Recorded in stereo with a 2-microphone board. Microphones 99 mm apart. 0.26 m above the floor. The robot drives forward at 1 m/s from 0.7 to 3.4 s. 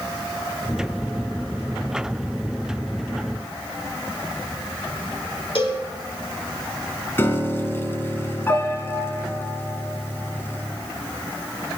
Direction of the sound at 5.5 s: 65° left (ahead or behind).